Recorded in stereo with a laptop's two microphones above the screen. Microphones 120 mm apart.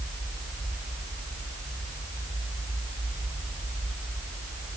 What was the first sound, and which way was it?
Only background noise.